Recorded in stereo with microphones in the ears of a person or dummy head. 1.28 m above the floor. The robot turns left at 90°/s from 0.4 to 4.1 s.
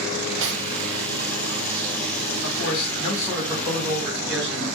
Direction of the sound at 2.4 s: 85° left.